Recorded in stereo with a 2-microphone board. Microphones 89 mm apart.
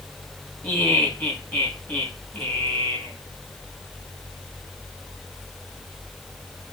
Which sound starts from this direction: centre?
Laughter, at 0.6 s.